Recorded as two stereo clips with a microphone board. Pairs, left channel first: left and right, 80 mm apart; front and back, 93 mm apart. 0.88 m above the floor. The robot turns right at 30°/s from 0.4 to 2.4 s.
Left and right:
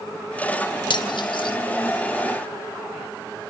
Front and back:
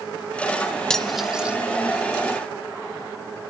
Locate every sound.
0.9 s cutlery clinking: 85° left, 1.5 m; by 1.6 s 105° left, 1.5 m